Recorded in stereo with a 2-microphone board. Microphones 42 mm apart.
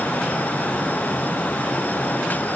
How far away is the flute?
I don't hear a flute.